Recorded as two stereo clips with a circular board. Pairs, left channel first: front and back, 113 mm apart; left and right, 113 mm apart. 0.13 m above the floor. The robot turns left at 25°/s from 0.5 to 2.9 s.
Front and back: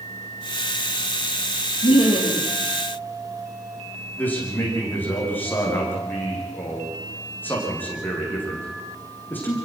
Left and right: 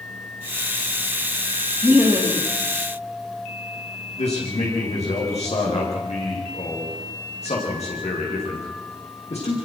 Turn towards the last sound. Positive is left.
turn(degrees=75)